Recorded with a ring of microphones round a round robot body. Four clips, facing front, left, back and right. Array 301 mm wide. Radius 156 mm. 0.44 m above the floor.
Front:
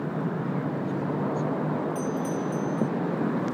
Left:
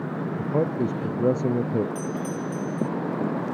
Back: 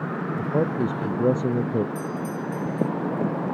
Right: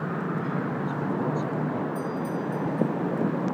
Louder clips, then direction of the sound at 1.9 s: Even, front 1 dB; 105° left.